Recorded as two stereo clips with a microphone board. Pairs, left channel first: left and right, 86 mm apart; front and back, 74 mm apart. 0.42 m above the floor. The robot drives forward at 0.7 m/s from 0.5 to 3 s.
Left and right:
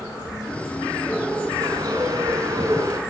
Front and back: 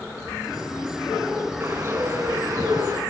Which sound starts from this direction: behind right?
A bird, at 1.6 s.